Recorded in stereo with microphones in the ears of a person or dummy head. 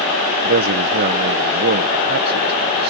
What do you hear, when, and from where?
0.4 s a man speaking: 50° right (ahead or behind)